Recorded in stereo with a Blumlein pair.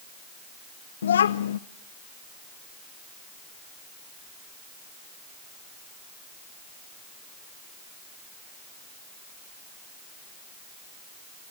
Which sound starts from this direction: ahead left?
A child speaking, at 1.0 s.